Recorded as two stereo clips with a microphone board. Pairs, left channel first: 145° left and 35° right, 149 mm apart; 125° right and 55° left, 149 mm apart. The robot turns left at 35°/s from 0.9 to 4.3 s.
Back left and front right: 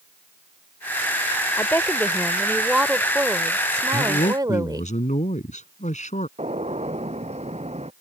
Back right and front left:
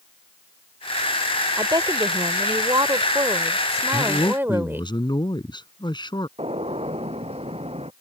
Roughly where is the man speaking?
Behind.